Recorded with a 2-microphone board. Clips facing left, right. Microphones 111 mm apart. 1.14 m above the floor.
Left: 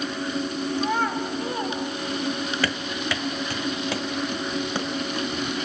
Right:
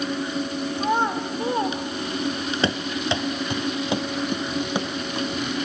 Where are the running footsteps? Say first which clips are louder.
Right 3 dB; 25° right (ahead or behind), 1.2 m; by 5.3 s 15° right (ahead or behind), 3 m.